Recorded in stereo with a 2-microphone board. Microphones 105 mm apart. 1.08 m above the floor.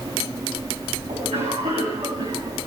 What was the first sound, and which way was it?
A cough, 80° right.